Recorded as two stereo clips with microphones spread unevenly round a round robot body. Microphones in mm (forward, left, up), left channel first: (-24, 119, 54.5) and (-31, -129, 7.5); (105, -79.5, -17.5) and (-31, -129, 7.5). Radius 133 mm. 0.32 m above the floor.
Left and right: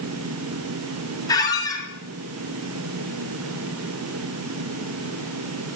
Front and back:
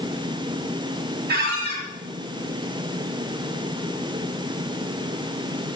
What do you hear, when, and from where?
1.3 s a squeak: 170° left, 1.8 m